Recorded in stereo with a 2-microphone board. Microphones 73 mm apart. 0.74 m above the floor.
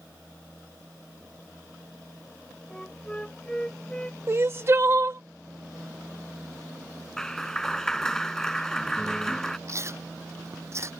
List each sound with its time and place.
2.7 s a flute: 15° left (ahead or behind)
4.3 s crying: 35° right (ahead or behind)
7.2 s a clap: 10° left (ahead or behind)
9.7 s chewing: 40° right (ahead or behind)